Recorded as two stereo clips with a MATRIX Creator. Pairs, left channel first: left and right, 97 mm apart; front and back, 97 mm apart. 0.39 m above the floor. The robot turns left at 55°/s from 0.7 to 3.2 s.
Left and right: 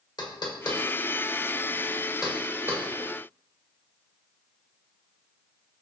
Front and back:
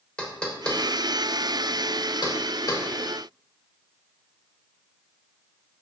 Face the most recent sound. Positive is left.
turn(degrees=-60)